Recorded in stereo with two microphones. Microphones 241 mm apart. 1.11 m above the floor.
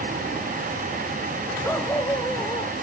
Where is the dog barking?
10° left (ahead or behind); by 2.7 s 15° left (ahead or behind).